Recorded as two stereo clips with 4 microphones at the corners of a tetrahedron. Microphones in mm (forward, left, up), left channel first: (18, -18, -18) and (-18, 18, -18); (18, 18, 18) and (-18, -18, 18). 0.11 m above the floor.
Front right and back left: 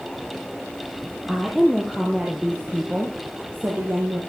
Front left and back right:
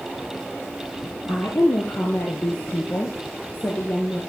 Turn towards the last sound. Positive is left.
turn(degrees=100)